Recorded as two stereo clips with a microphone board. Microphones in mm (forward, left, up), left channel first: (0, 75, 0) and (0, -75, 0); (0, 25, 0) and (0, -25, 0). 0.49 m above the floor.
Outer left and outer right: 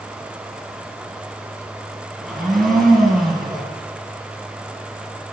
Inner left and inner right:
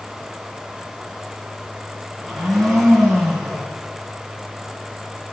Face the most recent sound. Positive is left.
turn(degrees=0)  # may be behind; listen again after turning